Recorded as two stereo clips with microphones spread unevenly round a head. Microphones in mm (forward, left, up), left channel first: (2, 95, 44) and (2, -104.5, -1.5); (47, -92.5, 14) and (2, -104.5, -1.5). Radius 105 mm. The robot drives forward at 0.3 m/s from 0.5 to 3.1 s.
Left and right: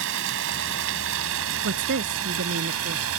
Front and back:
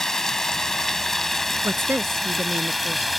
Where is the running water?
60° right; by 3.2 s 70° right.